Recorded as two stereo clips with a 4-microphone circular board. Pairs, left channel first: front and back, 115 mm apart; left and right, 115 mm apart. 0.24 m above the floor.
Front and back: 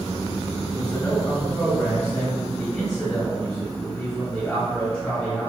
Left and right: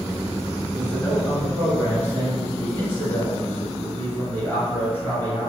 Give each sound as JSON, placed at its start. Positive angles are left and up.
{"t": 0.7, "sound": "a man speaking", "azimuth_deg": 70, "distance_m": 1.5}